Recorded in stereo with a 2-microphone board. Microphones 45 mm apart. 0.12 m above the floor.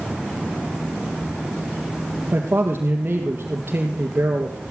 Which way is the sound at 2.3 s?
45° right (ahead or behind).